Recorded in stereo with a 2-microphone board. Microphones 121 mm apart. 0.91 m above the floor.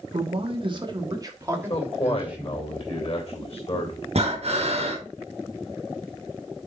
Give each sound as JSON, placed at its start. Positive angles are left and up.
{"t": 0.1, "sound": "a man speaking", "side_deg": -55, "distance_m": 1.5}
{"t": 1.6, "sound": "a man speaking", "side_deg": 55, "distance_m": 2.5}
{"t": 4.2, "sound": "breathing", "side_deg": -60, "distance_m": 1.5}